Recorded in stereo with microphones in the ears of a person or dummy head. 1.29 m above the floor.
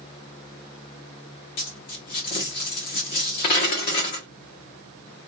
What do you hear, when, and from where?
1.6 s a dropped coin: 25° left (ahead or behind), 0.7 m